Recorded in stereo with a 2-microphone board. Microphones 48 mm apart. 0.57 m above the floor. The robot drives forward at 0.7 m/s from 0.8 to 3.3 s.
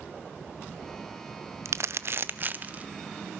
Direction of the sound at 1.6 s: 70° right (ahead or behind).